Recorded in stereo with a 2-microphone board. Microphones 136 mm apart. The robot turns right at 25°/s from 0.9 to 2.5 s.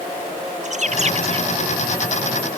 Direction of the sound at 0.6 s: 55° right (ahead or behind).